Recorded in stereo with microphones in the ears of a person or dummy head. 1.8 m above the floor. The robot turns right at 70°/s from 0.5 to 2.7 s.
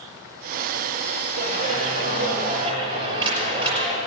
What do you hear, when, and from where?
1.4 s a clap: 130° right, 6 m; by 4.0 s 35° right, 6 m